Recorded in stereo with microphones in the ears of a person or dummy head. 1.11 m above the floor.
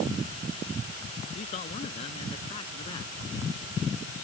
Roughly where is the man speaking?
Left.